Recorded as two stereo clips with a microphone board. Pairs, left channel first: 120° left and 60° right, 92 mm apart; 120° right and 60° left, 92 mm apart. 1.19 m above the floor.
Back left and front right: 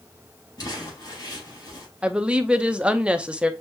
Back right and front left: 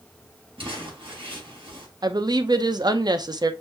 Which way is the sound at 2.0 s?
20° left.